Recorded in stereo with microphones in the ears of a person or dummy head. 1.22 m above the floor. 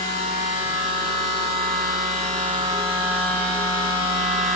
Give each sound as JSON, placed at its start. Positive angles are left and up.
{"t": 0.0, "sound": "a machine running", "side_deg": -35, "distance_m": 8.0}